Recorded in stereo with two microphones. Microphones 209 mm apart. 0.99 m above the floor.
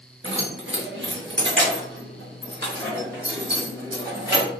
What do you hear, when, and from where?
0.2 s keys jangling: 80° right, 1.2 m; by 4.5 s 55° right (ahead or behind), 3.5 m